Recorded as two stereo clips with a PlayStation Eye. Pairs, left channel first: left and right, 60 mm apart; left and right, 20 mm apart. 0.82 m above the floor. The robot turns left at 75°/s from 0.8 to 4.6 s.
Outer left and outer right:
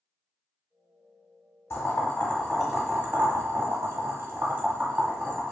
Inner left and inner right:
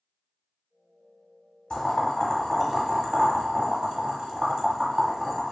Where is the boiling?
45° left (ahead or behind), 0.9 m; by 5.5 s 20° right (ahead or behind), 0.9 m.